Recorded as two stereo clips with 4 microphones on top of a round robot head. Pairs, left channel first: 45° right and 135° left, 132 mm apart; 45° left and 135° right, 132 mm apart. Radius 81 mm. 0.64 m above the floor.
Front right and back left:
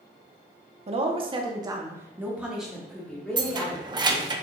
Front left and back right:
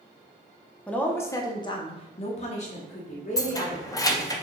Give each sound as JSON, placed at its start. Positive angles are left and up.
{"t": 0.9, "sound": "a woman speaking", "azimuth_deg": 120, "distance_m": 0.9}
{"t": 3.4, "sound": "keys jangling", "azimuth_deg": 95, "distance_m": 0.6}